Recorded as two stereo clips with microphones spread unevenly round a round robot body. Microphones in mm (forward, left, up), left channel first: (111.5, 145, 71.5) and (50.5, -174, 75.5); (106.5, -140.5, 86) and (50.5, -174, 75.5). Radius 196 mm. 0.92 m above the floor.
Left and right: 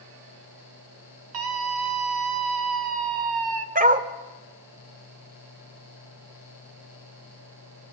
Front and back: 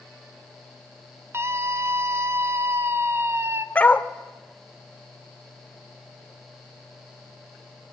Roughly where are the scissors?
No scissors in this recording.